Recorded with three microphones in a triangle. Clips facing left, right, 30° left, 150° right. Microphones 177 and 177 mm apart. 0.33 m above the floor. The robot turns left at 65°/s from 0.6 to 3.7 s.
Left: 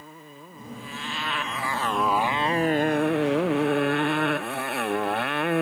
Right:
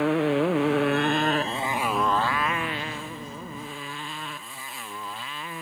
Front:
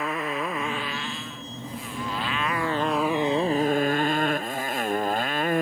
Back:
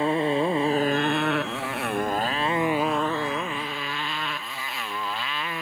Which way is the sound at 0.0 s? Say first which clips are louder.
Right 24 dB, back 7 dB; 90° right.